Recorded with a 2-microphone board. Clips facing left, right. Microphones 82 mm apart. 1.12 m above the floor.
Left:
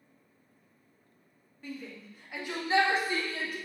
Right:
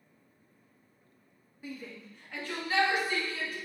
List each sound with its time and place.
1.6 s a shout: 10° right (ahead or behind), 2.5 m; by 3.6 s 50° left (ahead or behind), 2.5 m